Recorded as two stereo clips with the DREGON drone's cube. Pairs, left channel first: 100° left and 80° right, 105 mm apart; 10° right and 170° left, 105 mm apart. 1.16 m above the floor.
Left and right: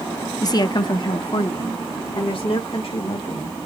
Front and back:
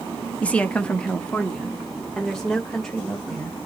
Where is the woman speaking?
60° left, 0.6 m; by 3.7 s 75° left, 2 m.